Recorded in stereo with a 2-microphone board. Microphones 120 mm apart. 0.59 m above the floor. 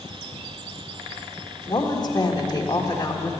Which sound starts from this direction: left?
A woman speaking, at 1.7 s.